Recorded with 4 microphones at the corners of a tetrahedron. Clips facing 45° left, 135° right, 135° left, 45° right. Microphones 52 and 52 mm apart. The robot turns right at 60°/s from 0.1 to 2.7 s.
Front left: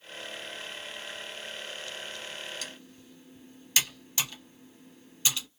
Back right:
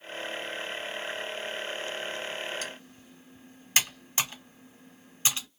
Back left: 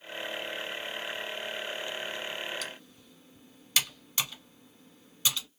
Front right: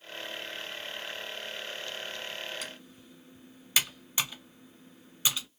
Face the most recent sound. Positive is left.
turn(degrees=-110)